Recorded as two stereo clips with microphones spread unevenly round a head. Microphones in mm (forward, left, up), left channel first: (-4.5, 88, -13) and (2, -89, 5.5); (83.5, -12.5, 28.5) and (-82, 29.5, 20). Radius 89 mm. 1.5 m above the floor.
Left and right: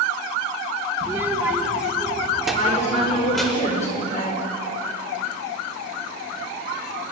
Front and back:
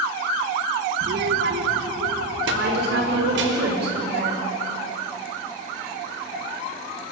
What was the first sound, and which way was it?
A child speaking, 160° right.